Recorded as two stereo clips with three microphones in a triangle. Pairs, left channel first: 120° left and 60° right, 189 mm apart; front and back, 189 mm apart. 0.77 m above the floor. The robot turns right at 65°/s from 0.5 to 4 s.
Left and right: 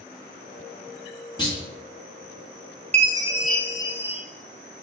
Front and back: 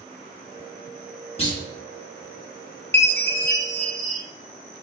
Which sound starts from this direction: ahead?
A chime, at 2.9 s.